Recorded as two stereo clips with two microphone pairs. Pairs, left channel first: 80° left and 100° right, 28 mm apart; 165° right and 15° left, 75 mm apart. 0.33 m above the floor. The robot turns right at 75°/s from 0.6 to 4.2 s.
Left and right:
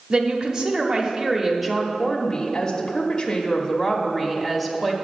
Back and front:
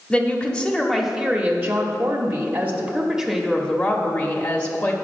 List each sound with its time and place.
0.1 s a woman speaking: 105° right, 0.9 m; by 4.9 s 165° left, 0.9 m